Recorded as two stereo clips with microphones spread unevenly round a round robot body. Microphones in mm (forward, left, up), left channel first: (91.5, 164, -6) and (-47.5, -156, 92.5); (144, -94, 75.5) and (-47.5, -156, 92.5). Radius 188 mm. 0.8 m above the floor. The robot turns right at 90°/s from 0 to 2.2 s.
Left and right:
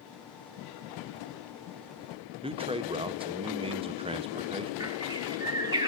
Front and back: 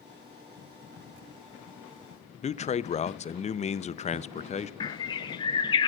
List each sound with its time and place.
2.4 s a man speaking: 25° right, 0.6 m
4.8 s a bird: 50° right, 0.6 m